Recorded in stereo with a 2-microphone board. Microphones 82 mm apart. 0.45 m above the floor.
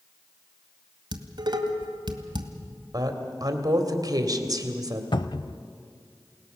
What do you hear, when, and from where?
1.1 s dishes clattering: 70° right (ahead or behind), 2.0 m
2.9 s a woman speaking: 55° right (ahead or behind), 2 m
5.1 s a cupboard door: 70° left (ahead or behind), 0.6 m